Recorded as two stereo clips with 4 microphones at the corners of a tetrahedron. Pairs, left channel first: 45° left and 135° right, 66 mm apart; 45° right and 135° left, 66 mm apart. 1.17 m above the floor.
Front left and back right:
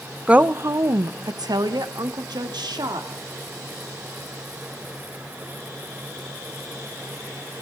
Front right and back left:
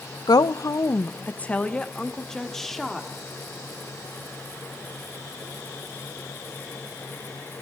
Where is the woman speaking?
60° right, 0.7 m; by 3.1 s 135° right, 2.5 m.